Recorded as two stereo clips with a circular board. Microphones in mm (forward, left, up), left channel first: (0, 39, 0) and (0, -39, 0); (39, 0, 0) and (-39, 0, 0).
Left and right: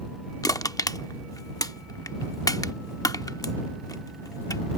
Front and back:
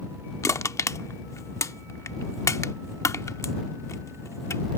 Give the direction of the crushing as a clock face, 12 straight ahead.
10 o'clock.